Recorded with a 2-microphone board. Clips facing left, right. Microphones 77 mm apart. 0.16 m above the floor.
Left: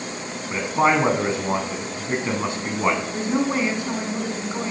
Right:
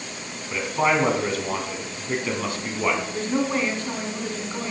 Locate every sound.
0.5 s a man speaking: 25° left (ahead or behind), 1.2 m
3.1 s a woman speaking: 10° left (ahead or behind), 1.1 m